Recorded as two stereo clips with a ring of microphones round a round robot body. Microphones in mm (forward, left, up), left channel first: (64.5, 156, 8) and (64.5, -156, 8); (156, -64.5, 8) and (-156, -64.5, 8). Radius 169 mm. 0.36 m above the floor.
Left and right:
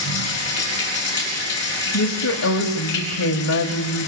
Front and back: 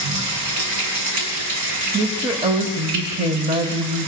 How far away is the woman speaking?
About 1.3 m.